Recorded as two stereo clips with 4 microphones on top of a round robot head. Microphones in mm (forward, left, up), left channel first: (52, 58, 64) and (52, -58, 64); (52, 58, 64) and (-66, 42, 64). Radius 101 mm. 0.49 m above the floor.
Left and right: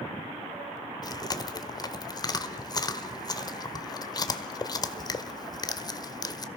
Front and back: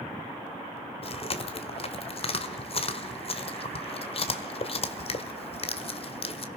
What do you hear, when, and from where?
1.0 s chewing: 40° left, 1.4 m